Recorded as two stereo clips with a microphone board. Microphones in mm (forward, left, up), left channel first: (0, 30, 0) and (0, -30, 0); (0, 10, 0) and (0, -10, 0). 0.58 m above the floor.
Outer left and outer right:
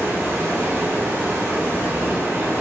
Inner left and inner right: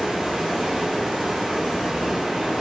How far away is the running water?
About 1.5 m.